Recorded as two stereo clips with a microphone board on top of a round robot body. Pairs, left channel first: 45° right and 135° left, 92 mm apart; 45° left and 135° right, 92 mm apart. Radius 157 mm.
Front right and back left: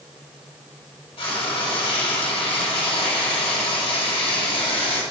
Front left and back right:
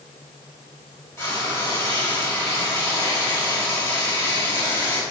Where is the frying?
20° right, 2.0 m.